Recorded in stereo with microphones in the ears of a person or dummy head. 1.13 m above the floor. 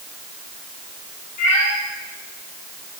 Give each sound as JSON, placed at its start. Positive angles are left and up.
{"t": 1.4, "sound": "a cat meowing", "side_deg": 50, "distance_m": 7.0}